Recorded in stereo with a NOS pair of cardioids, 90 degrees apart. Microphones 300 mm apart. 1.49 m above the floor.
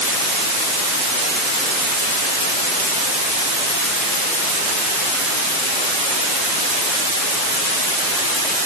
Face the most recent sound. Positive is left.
No sound to turn to.